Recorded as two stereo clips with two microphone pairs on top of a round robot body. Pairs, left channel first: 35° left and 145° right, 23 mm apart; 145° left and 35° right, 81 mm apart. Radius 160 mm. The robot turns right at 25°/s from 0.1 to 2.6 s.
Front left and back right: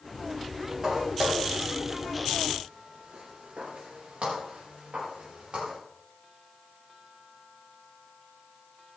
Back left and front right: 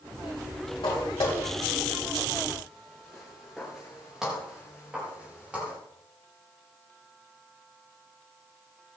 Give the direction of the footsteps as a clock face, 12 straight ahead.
7 o'clock.